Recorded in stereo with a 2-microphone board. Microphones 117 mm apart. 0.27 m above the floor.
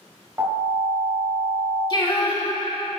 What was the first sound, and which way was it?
An alarm, 25° right (ahead or behind).